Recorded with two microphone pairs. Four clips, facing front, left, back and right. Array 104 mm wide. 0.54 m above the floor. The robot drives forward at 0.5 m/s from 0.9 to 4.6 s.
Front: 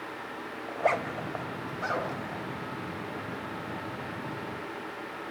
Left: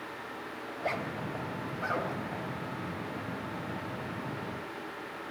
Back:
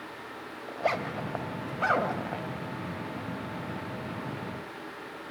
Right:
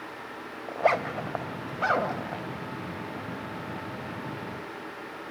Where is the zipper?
80° right, 0.7 m; by 2.5 s 135° right, 1.0 m.